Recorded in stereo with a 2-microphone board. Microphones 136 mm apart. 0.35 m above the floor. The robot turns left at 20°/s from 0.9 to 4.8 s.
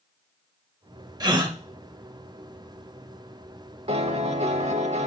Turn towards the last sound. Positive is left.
turn(degrees=-55)  # may be behind; listen again after turning